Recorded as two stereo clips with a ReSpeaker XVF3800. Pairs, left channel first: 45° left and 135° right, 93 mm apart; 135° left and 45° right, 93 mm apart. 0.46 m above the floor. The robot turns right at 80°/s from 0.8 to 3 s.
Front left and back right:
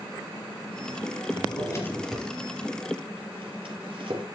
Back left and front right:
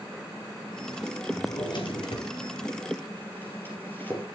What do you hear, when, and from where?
1.3 s a drawer: 65° left, 3.5 m; by 4.2 s 155° right, 3.5 m